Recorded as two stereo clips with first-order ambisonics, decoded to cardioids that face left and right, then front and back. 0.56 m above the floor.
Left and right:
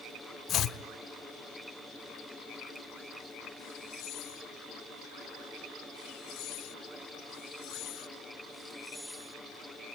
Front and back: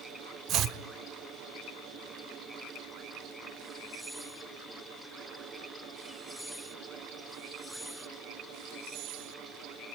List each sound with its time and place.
0.5 s chopping: 140° left, 1.0 m